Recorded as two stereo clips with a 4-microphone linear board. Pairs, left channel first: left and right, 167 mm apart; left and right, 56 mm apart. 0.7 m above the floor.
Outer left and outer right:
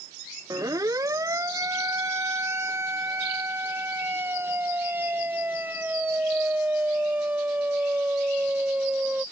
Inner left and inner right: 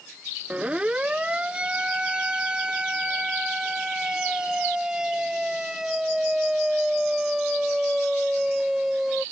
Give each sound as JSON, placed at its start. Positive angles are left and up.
{"t": 0.5, "sound": "a siren", "side_deg": -20}